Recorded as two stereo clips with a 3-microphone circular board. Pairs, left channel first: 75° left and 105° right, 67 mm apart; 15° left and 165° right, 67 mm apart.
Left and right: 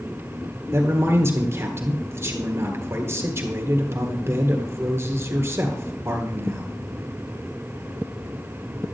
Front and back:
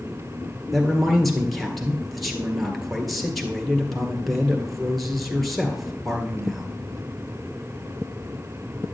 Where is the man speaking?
75° right, 1.6 m.